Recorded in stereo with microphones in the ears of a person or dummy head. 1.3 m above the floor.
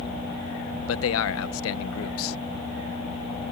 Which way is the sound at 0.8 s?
75° left (ahead or behind).